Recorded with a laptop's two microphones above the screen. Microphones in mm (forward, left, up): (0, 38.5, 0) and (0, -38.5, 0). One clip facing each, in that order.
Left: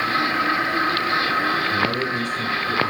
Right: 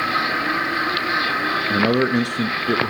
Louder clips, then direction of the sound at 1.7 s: Right 5 dB; 75° right (ahead or behind).